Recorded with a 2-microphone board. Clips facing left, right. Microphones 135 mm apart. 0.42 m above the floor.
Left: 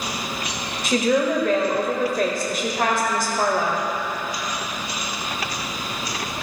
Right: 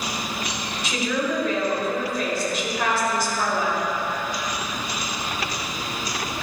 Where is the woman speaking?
50° left (ahead or behind), 1.7 m.